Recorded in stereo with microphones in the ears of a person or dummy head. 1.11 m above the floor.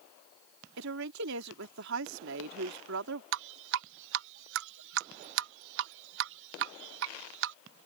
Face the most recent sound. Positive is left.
turn(degrees=-70)  # may be behind; listen again after turning